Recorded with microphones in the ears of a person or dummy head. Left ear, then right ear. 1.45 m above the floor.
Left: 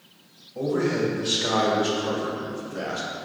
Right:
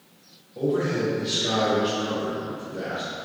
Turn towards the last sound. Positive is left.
turn(degrees=80)